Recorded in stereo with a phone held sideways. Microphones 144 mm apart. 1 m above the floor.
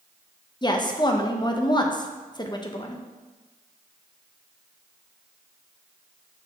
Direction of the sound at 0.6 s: 30° left (ahead or behind).